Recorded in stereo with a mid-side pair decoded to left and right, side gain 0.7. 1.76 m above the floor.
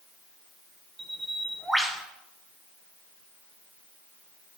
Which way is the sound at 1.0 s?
10° right.